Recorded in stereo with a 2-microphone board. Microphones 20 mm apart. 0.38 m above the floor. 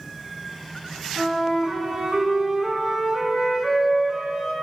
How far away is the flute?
About 1.2 m.